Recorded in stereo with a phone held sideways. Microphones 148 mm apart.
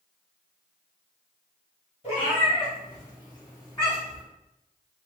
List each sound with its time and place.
2.0 s a cat meowing: 45° left (ahead or behind), 1.9 m; by 4.2 s 25° left (ahead or behind), 2.5 m